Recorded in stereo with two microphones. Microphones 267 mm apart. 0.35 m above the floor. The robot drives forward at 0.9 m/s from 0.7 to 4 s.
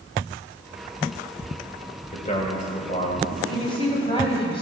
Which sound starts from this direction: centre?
A woman speaking, at 3.5 s.